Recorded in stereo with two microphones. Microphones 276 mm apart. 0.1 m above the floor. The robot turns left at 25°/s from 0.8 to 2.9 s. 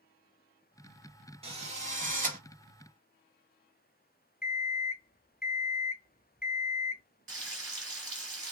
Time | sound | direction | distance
1.4 | a drill | 20° right (ahead or behind) | 1.1 m
4.4 | an alarm clock | 35° left (ahead or behind) | 0.8 m
7.3 | frying | 50° right (ahead or behind) | 1.3 m